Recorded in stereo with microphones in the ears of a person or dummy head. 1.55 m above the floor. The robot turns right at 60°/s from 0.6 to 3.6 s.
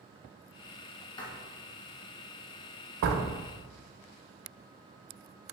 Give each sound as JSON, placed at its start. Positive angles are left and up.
{"t": 1.2, "sound": "writing", "side_deg": 25, "distance_m": 1.8}
{"t": 3.0, "sound": "a door slam", "side_deg": -65, "distance_m": 1.1}